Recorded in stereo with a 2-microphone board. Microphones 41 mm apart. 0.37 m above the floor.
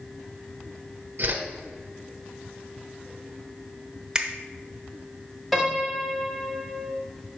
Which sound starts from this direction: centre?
A piano, at 5.5 s.